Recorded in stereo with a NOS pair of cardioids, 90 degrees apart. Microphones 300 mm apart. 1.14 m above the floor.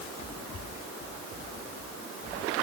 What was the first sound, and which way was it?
Only background noise.